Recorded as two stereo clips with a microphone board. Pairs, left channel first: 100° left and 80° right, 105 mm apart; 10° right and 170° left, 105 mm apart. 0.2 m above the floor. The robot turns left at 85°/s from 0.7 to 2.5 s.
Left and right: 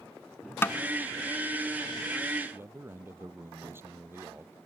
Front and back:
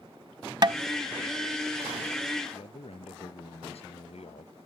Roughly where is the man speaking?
Ahead.